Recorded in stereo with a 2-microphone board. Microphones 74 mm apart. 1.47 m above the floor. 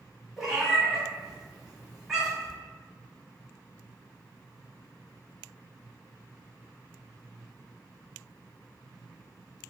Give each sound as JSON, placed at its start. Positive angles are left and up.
{"t": 0.4, "sound": "a cat meowing", "side_deg": -5, "distance_m": 1.6}